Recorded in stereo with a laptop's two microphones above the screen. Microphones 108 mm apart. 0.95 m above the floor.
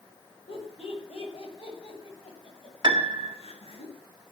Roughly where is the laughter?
Left.